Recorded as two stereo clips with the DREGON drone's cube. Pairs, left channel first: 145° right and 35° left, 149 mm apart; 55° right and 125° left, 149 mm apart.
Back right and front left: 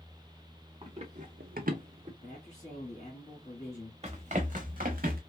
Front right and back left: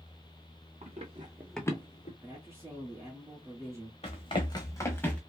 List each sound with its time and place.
0.8 s running footsteps: 85° left, 1.1 m; by 2.1 s 20° right, 0.9 m
2.2 s a man speaking: 170° right, 1.8 m
4.0 s running footsteps: 10° right, 1.0 m; by 5.2 s 25° left, 1.0 m